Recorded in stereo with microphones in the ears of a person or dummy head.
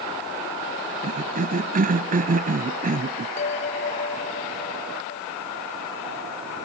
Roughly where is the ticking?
No ticking in this recording.